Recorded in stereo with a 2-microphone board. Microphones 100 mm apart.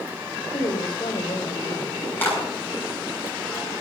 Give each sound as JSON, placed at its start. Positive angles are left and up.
{"t": 0.5, "sound": "a woman speaking", "side_deg": 45, "distance_m": 2.5}
{"t": 2.2, "sound": "a clap", "side_deg": 20, "distance_m": 9.0}